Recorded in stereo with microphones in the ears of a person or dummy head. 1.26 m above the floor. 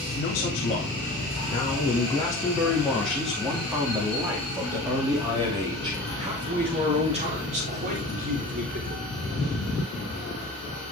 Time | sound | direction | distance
0.1 | a man speaking | 30° left (ahead or behind) | 3 m